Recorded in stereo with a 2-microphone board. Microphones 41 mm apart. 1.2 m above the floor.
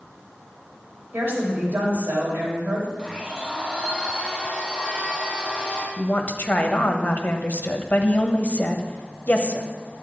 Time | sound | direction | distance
1.1 | a woman speaking | 65° right (ahead or behind) | 3.5 m
3.0 | a blender | 25° right (ahead or behind) | 2.5 m
6.0 | a woman speaking | 40° left (ahead or behind) | 1.0 m